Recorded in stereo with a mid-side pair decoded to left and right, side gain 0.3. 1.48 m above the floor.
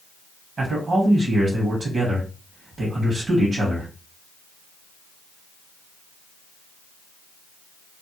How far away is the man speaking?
About 1.1 m.